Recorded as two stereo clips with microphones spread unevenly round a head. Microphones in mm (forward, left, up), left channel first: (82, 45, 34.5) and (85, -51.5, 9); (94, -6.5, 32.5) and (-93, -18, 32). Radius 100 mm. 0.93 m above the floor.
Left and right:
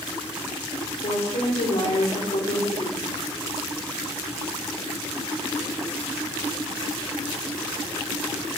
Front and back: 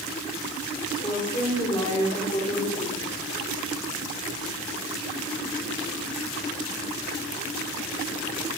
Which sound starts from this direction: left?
A woman speaking, at 1.0 s.